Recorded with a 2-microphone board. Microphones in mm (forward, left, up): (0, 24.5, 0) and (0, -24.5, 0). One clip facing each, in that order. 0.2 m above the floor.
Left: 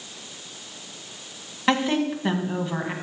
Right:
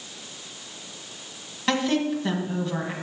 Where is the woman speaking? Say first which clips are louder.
Left 1 dB; 20° left (ahead or behind), 1.5 m.